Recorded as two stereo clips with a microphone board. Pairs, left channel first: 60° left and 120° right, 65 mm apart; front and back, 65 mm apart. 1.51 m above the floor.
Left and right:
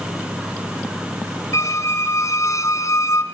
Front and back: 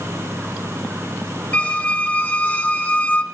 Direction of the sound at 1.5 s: 50° left.